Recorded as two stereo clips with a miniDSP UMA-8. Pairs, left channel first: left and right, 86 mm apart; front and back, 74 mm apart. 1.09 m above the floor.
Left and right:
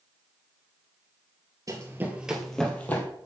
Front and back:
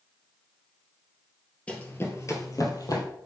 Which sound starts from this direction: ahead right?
Running footsteps, at 1.7 s.